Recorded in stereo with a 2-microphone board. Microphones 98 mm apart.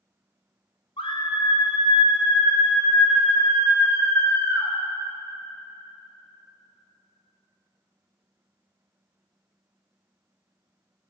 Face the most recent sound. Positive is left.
turn(degrees=25)  # may be behind; listen again after turning